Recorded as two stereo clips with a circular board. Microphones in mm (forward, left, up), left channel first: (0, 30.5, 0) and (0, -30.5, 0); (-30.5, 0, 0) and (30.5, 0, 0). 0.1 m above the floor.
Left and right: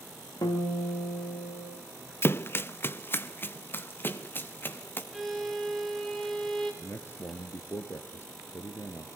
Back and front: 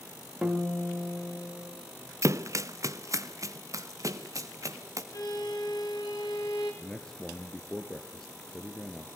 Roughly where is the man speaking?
Left.